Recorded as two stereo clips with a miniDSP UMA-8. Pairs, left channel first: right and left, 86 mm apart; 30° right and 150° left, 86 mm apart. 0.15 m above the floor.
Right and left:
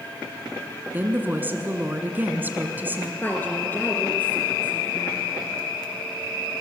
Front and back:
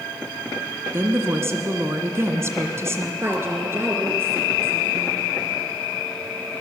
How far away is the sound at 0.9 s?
About 1.8 m.